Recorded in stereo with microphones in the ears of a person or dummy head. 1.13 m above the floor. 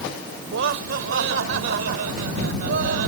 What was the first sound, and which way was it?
Laughter, 75° right (ahead or behind).